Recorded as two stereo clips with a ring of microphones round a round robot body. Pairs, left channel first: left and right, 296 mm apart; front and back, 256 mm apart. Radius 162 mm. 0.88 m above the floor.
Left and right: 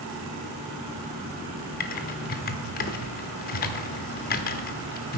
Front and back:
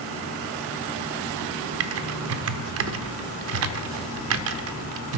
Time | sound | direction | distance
1.8 | typing on a keyboard | 150° left | 0.5 m